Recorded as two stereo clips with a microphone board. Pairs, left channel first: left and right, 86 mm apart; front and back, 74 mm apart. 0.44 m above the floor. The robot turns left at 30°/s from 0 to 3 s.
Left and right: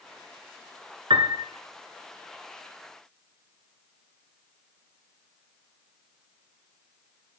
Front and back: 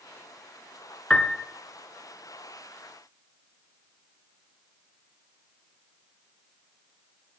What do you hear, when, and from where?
1.1 s a piano: 80° right, 0.7 m; by 1.4 s 90° right, 0.7 m